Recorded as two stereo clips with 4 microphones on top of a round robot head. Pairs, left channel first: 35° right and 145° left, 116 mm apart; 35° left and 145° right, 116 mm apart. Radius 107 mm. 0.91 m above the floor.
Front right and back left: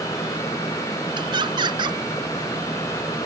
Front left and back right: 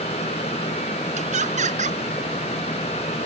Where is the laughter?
165° right.